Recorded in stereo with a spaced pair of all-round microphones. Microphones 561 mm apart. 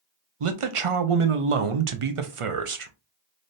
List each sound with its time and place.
0.4 s a man speaking: 60° right (ahead or behind), 0.7 m